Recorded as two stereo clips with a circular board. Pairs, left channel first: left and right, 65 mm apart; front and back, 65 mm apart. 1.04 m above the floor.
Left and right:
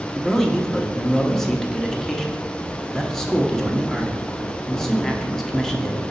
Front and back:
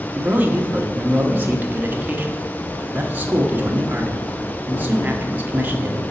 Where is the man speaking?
170° left, 0.8 m.